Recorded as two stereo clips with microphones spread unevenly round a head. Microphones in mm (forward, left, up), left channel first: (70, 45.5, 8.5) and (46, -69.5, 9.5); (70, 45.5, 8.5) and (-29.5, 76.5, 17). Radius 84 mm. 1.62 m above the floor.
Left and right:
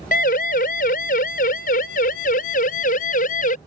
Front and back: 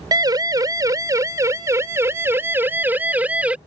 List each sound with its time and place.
0.1 s a siren: 110° left; by 3.6 s 85° left